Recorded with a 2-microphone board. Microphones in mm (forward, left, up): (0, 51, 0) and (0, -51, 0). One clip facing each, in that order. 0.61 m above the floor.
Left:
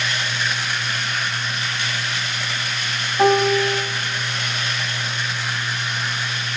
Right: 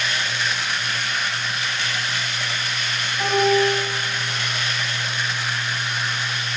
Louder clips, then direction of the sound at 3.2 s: Left 2 dB; 50° left (ahead or behind).